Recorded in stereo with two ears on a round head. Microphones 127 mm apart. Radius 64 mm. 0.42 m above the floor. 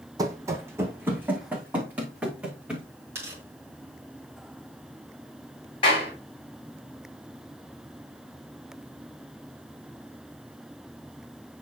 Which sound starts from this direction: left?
A clap, at 5.8 s.